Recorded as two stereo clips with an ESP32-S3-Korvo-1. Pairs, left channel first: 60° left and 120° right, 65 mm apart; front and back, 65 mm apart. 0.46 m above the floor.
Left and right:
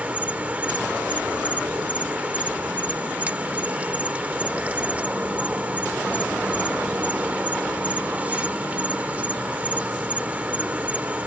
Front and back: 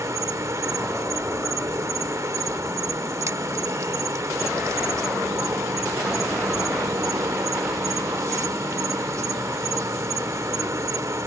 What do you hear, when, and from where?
0.0 s an insect: straight behind